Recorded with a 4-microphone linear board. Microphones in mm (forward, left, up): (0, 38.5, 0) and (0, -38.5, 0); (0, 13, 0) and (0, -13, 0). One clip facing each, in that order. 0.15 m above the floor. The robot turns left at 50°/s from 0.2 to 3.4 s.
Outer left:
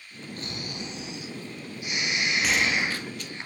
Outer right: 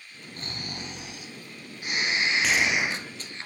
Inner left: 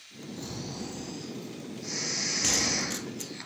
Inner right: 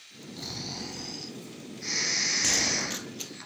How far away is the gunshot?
About 0.6 m.